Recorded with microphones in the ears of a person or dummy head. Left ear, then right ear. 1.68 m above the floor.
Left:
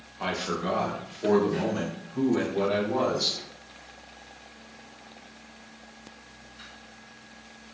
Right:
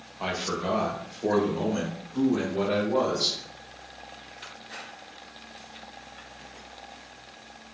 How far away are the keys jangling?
No keys jangling in this recording.